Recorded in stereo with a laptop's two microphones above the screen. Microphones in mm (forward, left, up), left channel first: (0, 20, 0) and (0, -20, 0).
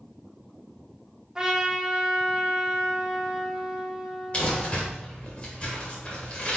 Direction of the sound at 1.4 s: 15° right (ahead or behind).